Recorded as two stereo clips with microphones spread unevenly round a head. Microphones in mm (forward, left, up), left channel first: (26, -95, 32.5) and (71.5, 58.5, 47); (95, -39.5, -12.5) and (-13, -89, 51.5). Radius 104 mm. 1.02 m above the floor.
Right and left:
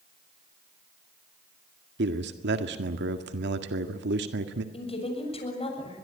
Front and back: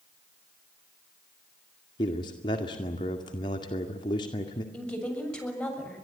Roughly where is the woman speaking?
Ahead right.